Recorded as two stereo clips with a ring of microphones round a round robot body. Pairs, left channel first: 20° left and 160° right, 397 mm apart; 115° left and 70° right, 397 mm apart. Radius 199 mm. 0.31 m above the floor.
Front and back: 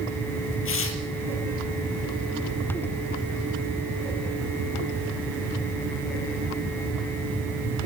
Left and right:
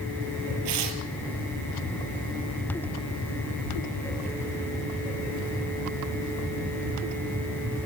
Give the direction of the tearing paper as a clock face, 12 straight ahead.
1 o'clock.